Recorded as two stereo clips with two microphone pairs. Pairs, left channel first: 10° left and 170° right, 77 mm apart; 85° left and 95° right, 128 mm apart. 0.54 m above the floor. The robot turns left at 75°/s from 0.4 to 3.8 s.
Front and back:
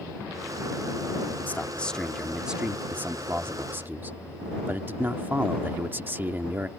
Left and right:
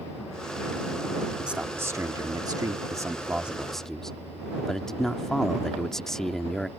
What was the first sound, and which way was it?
A man speaking, 15° right.